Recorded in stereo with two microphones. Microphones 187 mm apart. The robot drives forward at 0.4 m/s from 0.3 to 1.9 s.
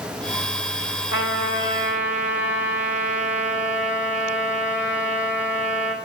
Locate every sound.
1.1 s a trumpet: 80° left, 1.6 m; by 6.0 s 90° left, 1.6 m